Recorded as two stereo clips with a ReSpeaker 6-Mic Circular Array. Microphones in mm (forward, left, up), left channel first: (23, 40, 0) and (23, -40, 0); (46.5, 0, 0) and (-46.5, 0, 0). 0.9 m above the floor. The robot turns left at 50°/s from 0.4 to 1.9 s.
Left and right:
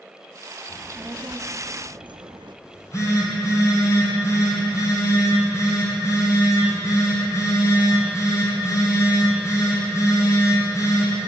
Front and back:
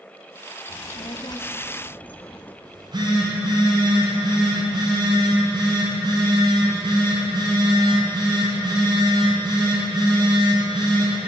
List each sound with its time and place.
0.7 s a child speaking: 10° right, 0.6 m; by 2.5 s 70° right, 0.6 m
2.6 s a phone buzzing: 140° left, 2.5 m